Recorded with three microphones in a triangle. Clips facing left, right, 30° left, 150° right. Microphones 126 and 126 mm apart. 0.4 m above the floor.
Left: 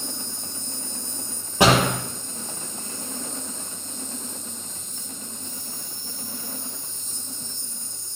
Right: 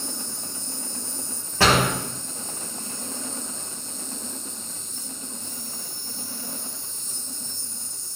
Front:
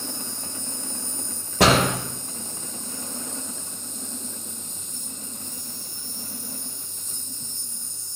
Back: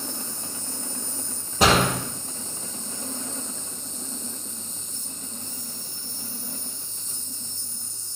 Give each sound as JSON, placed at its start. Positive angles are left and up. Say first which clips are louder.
{"t": 0.0, "sound": "an insect", "louder": "even, even", "azimuth_deg": 55, "distance_m": 1.6}
{"t": 1.6, "sound": "a door slam", "louder": "left 2 dB, front 1 dB", "azimuth_deg": 20, "distance_m": 6.5}